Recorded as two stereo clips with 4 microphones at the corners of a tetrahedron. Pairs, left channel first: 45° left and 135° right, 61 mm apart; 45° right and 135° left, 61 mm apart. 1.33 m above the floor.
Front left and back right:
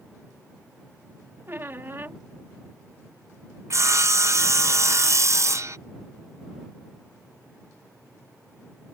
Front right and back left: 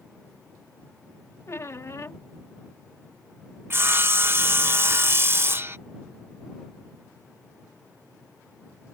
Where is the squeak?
85° right.